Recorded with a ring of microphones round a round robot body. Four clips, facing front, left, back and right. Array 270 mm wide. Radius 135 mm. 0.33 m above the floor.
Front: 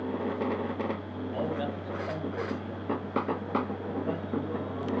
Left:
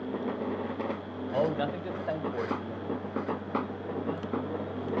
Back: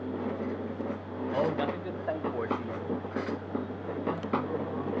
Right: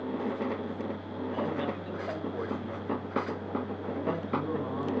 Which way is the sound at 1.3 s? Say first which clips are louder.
Left 5 dB, back 3 dB; 120° left.